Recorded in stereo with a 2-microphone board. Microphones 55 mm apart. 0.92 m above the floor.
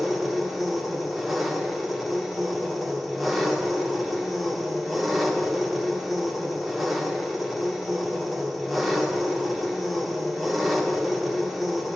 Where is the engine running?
Centre (ahead or behind), 1.8 m.